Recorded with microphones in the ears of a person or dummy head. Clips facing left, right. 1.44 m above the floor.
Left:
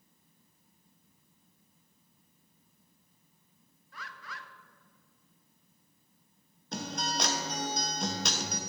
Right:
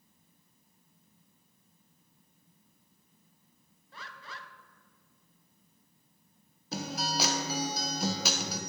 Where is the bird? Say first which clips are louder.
Even; 25° right (ahead or behind), 0.5 m.